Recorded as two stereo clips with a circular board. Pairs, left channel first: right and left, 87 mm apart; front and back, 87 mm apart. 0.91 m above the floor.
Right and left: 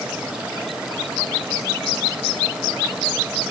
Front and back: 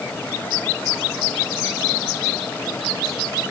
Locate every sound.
Only background noise.